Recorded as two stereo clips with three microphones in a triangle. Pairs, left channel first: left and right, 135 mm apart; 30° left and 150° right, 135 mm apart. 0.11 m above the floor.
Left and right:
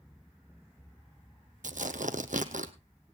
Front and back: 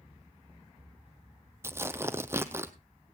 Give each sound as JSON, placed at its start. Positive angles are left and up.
{"t": 1.6, "sound": "tearing paper", "azimuth_deg": -80, "distance_m": 0.8}